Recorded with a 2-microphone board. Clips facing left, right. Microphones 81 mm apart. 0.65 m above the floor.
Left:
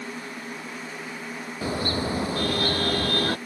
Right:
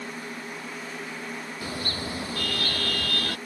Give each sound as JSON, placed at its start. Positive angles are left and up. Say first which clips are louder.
{"t": 1.6, "sound": "a car horn", "louder": "left 8 dB", "side_deg": 30}